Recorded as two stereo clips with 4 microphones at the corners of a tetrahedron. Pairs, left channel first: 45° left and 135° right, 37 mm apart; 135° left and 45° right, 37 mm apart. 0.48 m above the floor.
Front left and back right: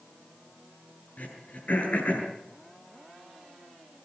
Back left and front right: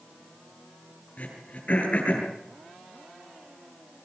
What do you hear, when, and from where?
1.2 s throat clearing: 85° left, 9 m